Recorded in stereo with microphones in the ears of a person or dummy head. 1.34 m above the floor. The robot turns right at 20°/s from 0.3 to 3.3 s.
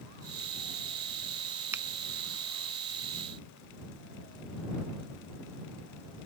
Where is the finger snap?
15° right (ahead or behind).